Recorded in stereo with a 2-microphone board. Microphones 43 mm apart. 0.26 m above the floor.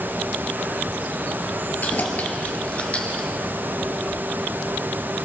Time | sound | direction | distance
1.8 | keys jangling | 35° left (ahead or behind) | 3.5 m